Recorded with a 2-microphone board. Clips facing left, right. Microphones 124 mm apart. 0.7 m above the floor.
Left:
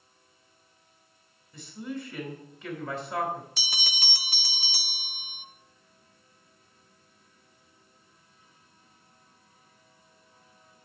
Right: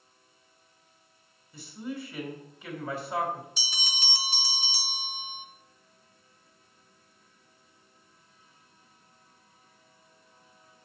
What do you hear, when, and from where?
1.5 s a man speaking: 10° right (ahead or behind), 3 m
3.6 s a bell: 60° left (ahead or behind), 0.5 m